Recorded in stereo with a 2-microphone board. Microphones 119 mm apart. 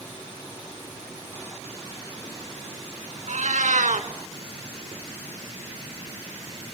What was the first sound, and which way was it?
A cat meowing, 85° right.